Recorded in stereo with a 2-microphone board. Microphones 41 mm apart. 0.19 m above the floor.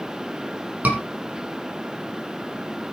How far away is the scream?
About 7 m.